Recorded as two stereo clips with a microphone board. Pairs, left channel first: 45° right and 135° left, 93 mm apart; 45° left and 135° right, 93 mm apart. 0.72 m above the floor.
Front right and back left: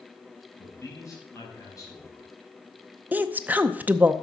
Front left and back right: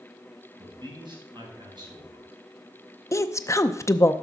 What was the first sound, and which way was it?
A man speaking, 100° right.